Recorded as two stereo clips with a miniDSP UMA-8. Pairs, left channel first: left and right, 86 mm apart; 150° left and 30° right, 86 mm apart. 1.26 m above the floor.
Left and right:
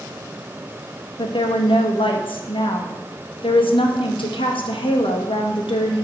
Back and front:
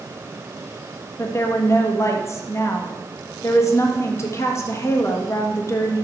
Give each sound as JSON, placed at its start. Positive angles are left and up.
{"t": 1.2, "sound": "a woman speaking", "azimuth_deg": 95, "distance_m": 1.4}